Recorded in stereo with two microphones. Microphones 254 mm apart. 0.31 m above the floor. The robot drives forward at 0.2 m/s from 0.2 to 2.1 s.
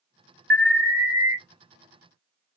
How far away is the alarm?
About 1.1 m.